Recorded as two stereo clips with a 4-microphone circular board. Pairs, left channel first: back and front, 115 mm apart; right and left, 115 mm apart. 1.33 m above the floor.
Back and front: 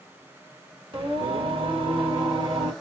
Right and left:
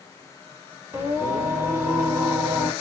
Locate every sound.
0.9 s singing: 25° left, 1.5 m